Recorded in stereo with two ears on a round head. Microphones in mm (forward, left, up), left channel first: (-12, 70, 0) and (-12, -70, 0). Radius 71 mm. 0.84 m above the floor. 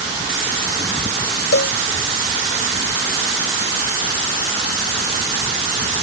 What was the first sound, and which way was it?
A cowbell, 70° left (ahead or behind).